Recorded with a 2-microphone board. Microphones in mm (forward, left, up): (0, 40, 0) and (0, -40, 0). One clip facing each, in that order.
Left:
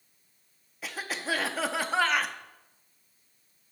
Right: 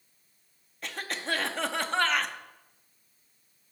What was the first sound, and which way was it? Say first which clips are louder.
A cough: left 1 dB; 5° left (ahead or behind).